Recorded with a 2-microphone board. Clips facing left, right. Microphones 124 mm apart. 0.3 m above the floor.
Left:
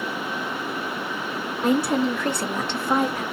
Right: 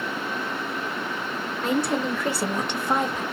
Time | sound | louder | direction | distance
1.6 | a woman speaking | left 4 dB | 15° left (ahead or behind) | 0.9 m